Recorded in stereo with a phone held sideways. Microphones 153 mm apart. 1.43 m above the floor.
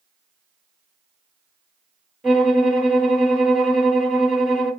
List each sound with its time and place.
2.2 s a violin: centre (ahead or behind), 1.6 m